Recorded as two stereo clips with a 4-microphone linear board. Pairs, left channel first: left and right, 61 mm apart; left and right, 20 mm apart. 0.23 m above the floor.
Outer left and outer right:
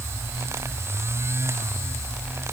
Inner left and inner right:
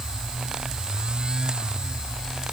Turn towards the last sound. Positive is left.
No sound to turn to.